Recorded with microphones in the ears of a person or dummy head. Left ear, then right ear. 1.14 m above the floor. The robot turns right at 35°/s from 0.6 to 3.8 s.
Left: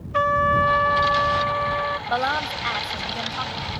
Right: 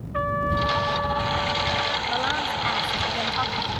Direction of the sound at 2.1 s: 145° left.